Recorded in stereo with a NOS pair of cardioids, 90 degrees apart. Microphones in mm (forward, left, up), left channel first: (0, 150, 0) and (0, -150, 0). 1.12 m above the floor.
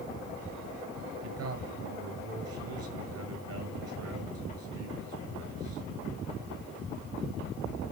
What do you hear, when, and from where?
1.2 s a man speaking: 55° right, 6 m